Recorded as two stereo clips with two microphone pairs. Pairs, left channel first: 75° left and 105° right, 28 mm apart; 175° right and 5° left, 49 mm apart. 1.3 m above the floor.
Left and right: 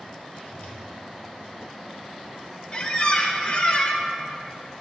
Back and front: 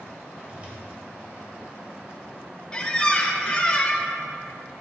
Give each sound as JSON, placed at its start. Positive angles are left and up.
{"t": 0.5, "sound": "a whoosh", "azimuth_deg": 65, "distance_m": 2.0}
{"t": 2.7, "sound": "a squeak", "azimuth_deg": 120, "distance_m": 0.8}